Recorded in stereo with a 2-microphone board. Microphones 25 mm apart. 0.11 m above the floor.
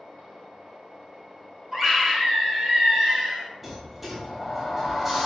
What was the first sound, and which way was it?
A scream, 10° right (ahead or behind).